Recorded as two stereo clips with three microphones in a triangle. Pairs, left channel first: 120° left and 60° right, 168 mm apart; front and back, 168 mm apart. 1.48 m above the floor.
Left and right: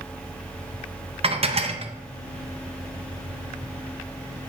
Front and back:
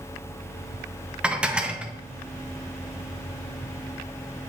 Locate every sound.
1.2 s dishes clattering: 100° right, 0.6 m